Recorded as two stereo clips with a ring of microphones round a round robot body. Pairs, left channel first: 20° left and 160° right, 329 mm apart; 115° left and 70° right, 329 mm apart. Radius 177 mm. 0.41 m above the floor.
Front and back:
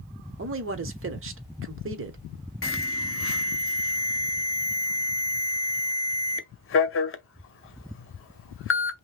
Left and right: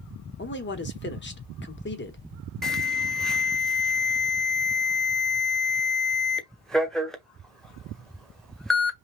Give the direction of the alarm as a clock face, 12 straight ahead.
11 o'clock.